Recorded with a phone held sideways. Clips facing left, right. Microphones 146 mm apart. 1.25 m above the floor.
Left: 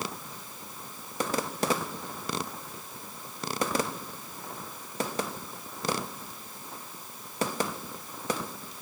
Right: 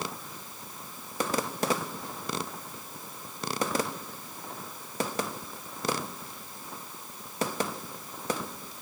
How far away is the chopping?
No chopping in this recording.